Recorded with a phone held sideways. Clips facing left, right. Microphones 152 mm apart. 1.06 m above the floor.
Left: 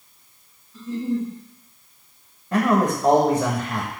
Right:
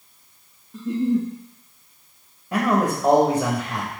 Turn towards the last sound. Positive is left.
turn(degrees=0)  # may be behind; listen again after turning